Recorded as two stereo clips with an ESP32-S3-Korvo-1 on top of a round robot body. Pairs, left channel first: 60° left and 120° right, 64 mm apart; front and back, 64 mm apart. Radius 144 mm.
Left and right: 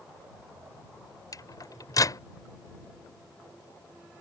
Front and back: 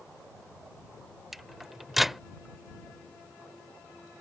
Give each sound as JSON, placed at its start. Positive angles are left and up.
{"t": 1.3, "sound": "a microwave", "azimuth_deg": 95}